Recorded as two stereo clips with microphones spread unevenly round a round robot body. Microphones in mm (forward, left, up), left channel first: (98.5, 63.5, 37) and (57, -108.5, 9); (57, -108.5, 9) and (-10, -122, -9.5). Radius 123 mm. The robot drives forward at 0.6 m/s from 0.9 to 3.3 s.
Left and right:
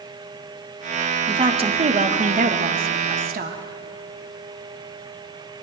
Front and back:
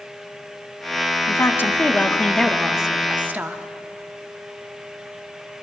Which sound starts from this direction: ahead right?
A woman speaking, at 1.3 s.